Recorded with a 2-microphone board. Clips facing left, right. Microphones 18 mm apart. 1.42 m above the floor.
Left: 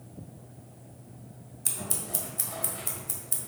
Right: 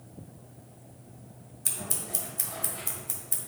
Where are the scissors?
5° right (ahead or behind), 1.5 m.